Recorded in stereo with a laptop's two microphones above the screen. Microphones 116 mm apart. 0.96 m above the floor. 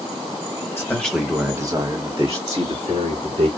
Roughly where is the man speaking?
Left.